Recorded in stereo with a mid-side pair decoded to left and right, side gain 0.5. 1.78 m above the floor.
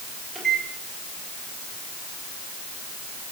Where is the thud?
I don't hear a thud.